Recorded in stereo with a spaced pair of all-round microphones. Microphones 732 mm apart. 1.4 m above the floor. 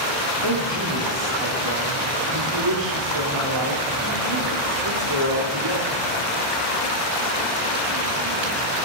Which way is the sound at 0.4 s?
35° right (ahead or behind).